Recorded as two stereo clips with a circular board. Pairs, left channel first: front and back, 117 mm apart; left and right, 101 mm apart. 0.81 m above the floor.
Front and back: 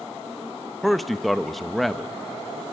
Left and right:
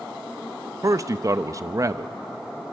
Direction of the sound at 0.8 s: 90° right.